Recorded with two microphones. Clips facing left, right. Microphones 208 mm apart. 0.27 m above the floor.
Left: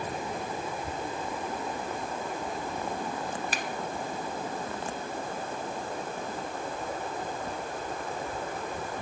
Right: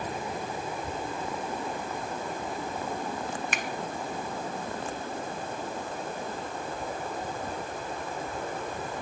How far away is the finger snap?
About 1.6 m.